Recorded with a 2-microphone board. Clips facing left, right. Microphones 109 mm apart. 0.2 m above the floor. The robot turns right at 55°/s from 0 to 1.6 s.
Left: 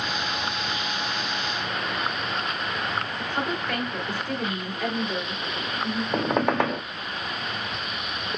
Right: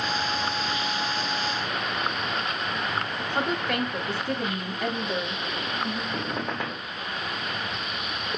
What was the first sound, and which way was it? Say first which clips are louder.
A woman speaking: right 3 dB; 20° right (ahead or behind).